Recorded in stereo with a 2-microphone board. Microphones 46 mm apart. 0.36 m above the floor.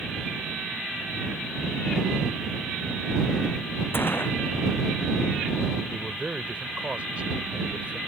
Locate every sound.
3.9 s a gunshot: 55° left (ahead or behind)
5.9 s a man speaking: 30° right (ahead or behind)